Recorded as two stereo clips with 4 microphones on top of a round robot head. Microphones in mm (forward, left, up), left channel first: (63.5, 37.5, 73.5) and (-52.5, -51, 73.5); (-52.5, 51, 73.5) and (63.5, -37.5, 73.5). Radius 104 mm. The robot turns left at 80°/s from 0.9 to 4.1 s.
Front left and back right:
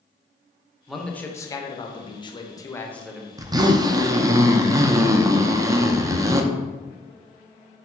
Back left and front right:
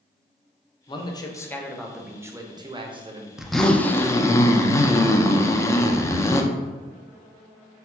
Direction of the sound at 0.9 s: 130° left.